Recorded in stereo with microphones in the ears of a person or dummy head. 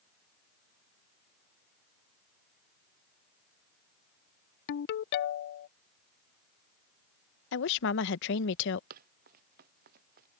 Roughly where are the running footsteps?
Right.